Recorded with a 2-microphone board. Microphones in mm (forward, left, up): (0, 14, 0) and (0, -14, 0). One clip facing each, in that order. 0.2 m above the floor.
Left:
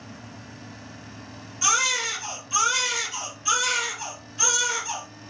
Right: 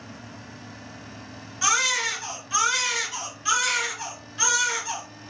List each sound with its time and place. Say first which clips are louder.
1.6 s a baby crying: even; 35° right (ahead or behind), 1.9 m